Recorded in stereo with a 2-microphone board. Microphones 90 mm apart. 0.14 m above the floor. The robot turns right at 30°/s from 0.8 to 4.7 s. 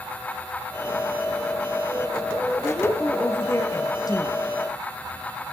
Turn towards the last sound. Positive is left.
turn(degrees=70)